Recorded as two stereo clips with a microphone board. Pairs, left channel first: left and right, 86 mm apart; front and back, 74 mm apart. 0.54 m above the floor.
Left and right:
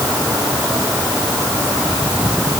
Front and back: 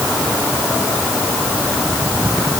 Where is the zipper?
I don't hear a zipper.